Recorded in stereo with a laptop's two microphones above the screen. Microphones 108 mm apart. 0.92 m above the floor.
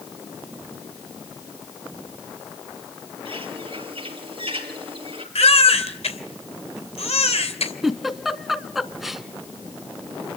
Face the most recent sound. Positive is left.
turn(degrees=-5)  # may be behind; listen again after turning